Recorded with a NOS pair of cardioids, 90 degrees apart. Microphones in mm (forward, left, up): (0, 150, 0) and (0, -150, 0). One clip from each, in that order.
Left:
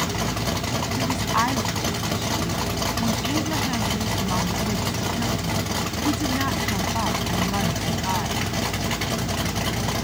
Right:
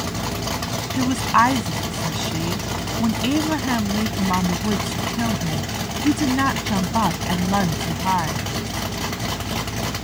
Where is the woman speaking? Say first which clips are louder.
Right 7 dB; 55° right.